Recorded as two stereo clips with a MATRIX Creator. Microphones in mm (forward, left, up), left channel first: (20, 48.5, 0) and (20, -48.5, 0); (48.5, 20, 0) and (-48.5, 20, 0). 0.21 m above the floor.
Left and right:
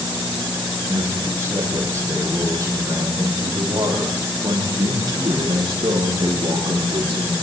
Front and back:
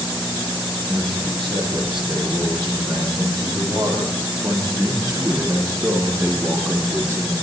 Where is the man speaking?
155° right, 8 m; by 7.3 s 120° right, 8.5 m.